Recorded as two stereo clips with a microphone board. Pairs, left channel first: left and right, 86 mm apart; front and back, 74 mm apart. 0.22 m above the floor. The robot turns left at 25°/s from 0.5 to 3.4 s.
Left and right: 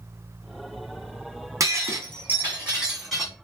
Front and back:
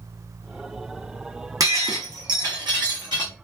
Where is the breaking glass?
140° right, 1.8 m; by 3.3 s straight behind, 1.8 m.